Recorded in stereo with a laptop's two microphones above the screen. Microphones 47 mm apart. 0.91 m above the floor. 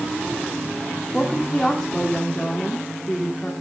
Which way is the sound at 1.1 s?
15° left (ahead or behind).